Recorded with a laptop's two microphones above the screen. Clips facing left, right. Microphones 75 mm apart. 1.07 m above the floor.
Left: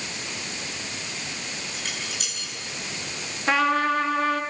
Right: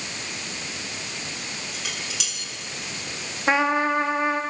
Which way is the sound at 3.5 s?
20° right (ahead or behind).